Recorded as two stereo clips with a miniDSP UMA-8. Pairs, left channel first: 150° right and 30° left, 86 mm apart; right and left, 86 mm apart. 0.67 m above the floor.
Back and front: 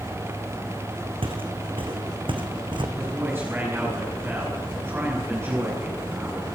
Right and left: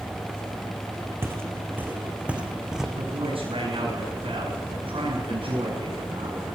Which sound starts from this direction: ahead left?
Footsteps, at 1.2 s.